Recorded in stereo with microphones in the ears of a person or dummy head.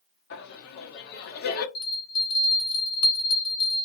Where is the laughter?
55° left (ahead or behind), 1.0 m.